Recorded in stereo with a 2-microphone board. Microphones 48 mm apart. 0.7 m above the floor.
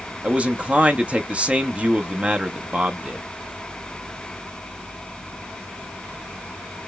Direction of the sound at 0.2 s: 25° right (ahead or behind).